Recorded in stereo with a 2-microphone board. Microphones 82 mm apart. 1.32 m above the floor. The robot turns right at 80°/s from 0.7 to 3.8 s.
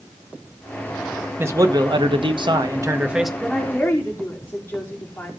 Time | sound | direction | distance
1.4 | a man speaking | 150° right | 1.5 m
3.4 | a woman speaking | 5° right | 4.5 m